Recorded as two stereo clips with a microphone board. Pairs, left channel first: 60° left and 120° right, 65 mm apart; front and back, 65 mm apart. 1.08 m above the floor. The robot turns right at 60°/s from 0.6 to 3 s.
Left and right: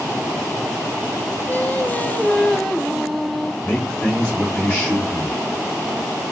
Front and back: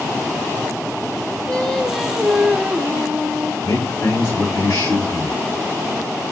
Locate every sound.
1.5 s singing: 50° left, 0.6 m; by 3.5 s 145° left, 0.6 m
3.6 s a man speaking: 5° left, 3 m